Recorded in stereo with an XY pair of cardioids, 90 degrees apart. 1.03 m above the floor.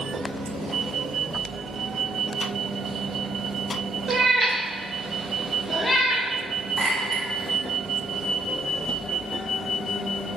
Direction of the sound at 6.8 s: 20° right.